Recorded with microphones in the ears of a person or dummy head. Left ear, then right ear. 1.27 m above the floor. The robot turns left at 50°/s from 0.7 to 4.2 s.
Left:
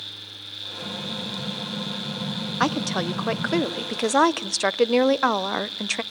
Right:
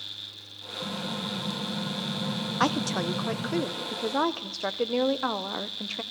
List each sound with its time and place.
0.8 s an explosion: 70° right, 1.6 m; by 3.6 s 150° left, 1.6 m
2.6 s a woman speaking: straight behind, 0.9 m; by 6.0 s 100° left, 0.9 m